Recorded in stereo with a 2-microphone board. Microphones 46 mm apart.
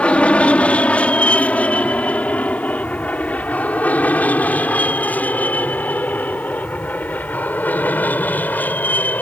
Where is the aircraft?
25° left (ahead or behind); by 9.2 s 40° left (ahead or behind).